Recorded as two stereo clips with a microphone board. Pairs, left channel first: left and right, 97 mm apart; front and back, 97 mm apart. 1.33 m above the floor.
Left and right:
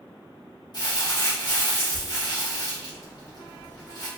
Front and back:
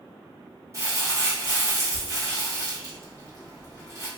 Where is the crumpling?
125° left, 1.8 m.